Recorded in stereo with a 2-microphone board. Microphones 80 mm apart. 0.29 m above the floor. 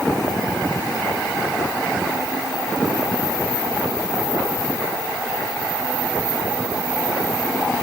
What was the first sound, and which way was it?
Only background noise.